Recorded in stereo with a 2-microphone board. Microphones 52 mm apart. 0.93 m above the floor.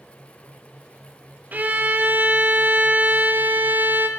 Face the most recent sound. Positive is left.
turn(degrees=-30)  # may be behind; listen again after turning